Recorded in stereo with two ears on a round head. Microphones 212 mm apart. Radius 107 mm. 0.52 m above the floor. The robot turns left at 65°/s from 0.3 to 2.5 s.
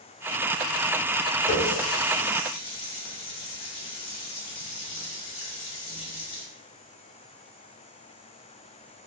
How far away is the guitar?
No guitar in this recording.